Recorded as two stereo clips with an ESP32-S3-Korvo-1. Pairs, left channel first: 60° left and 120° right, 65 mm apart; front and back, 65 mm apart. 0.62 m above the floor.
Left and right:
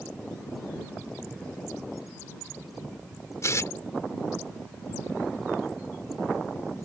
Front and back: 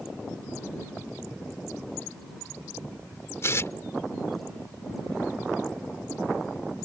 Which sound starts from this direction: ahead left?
Tearing paper, at 3.4 s.